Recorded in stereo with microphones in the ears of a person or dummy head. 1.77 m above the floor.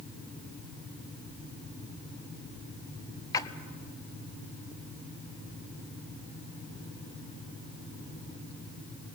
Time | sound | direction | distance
3.3 | a splash | 15° left (ahead or behind) | 0.9 m